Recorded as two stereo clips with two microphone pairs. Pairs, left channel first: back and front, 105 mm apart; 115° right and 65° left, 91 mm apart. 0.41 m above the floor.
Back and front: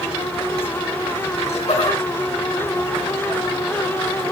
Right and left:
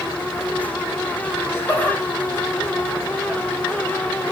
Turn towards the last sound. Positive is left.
turn(degrees=155)